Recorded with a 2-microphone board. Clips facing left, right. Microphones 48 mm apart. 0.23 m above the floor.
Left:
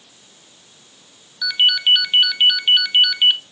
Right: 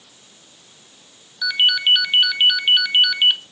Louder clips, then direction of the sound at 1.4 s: Left 1 dB; 5° right (ahead or behind).